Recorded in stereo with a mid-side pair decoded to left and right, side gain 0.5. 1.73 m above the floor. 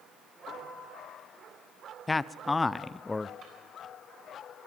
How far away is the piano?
About 4.5 m.